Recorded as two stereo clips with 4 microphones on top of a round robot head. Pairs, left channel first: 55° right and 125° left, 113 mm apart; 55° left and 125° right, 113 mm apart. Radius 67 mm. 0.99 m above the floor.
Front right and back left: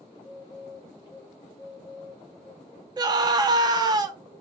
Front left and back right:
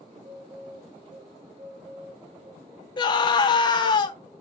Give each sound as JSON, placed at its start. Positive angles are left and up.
{"t": 0.1, "sound": "a bird", "azimuth_deg": -105, "distance_m": 1.6}
{"t": 3.0, "sound": "a scream", "azimuth_deg": 85, "distance_m": 0.8}